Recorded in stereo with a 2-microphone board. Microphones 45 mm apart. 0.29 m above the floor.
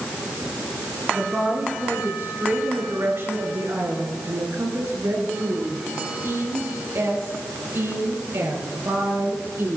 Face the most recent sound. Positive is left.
turn(degrees=-75)  # may be behind; listen again after turning